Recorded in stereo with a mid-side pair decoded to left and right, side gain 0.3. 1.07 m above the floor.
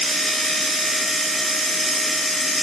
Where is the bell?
No bell in this recording.